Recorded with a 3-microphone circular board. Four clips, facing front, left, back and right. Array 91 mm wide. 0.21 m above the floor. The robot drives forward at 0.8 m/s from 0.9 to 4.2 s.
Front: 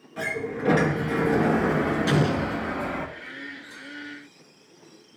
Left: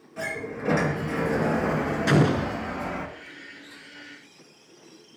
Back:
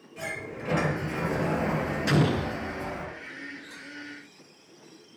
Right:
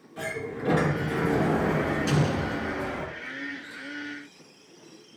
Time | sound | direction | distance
0.2 | a sliding door | 15° left | 3.5 m
2.1 | an explosion | 80° left | 0.9 m